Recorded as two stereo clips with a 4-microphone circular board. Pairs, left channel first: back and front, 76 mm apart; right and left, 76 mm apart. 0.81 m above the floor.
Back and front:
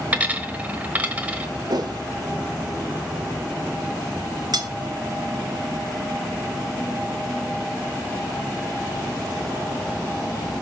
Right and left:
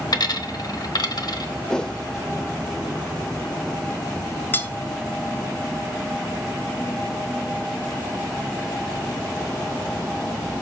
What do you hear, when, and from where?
0.1 s a dropped coin: 65° right, 1.0 m
1.7 s a whoosh: 10° right, 0.8 m
4.5 s cutlery clinking: 25° right, 0.8 m